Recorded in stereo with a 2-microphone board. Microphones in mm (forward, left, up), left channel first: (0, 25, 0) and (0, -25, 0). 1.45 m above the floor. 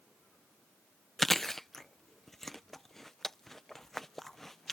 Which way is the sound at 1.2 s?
5° left (ahead or behind).